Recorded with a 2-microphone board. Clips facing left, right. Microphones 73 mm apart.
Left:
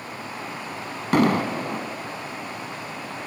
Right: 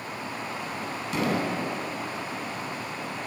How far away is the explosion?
About 1.7 m.